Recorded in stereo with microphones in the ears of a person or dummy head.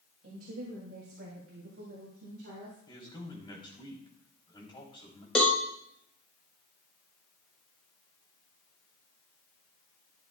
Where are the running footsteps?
No running footsteps in this recording.